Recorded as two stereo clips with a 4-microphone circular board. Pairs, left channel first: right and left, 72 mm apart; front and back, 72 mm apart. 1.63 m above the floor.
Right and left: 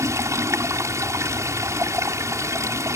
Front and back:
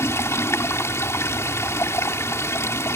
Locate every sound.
0.0 s running water: 50° left